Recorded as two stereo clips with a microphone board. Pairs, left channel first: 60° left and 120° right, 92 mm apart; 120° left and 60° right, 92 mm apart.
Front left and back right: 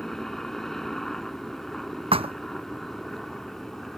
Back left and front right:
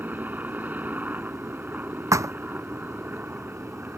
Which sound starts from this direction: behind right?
A thud, at 2.1 s.